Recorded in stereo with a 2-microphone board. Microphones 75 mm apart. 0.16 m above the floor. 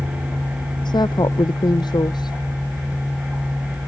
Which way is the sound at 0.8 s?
70° left (ahead or behind).